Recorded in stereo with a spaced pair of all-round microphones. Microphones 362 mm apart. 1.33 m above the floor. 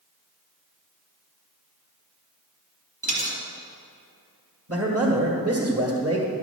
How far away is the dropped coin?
About 1.8 m.